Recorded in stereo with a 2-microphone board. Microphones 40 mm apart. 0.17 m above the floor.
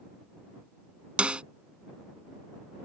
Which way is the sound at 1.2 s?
30° right (ahead or behind).